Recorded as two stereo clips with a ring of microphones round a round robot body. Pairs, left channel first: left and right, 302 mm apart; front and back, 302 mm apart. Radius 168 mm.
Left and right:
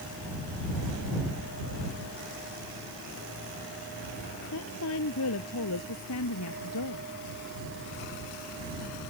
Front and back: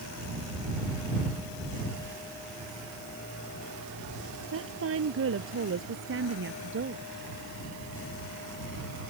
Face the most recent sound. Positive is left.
turn(degrees=130)